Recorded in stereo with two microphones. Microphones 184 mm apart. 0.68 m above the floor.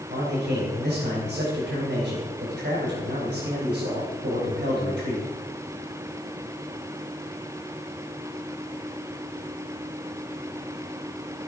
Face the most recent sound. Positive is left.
turn(degrees=-70)  # may be behind; listen again after turning